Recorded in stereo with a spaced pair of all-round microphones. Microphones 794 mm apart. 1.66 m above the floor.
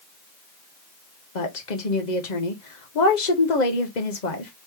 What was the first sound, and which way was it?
A woman speaking, 60° left (ahead or behind).